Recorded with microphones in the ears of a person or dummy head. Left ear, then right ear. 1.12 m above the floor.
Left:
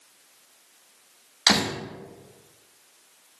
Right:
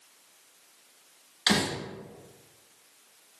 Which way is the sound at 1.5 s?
25° left (ahead or behind).